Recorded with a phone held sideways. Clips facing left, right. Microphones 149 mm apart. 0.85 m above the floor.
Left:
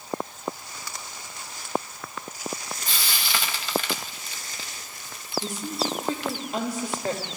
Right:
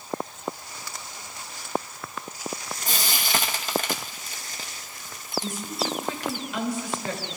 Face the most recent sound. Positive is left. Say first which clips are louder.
# left 2 dB
turn(degrees=40)  # may be behind; listen again after turning